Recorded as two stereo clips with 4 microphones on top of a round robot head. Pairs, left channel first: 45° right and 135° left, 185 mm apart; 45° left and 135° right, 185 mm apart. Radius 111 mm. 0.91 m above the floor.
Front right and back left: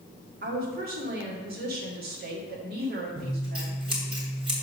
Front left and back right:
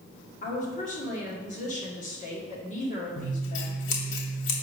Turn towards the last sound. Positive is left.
turn(degrees=70)